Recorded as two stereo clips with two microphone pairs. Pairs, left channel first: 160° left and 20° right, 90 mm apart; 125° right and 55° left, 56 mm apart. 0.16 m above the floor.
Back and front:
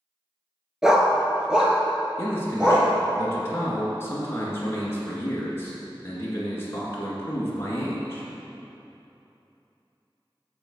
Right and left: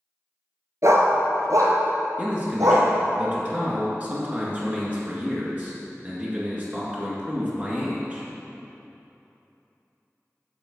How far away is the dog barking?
About 0.7 m.